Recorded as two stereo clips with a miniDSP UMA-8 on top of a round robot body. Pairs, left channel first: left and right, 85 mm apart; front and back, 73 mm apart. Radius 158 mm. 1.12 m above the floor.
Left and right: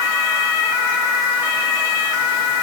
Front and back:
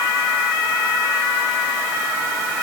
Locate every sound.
Only background noise.